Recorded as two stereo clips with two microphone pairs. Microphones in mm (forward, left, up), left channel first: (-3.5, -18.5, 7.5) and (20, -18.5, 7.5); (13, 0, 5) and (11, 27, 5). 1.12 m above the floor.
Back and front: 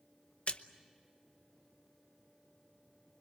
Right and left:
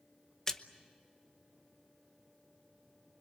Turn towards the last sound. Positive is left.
turn(degrees=-160)